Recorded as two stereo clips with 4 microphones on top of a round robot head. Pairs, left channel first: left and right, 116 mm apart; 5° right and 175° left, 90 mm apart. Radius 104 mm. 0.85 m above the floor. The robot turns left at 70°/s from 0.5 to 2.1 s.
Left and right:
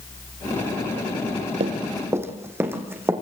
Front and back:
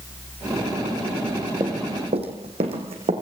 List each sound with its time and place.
1.6 s running footsteps: 120° right, 2.5 m; by 3.1 s 160° right, 4 m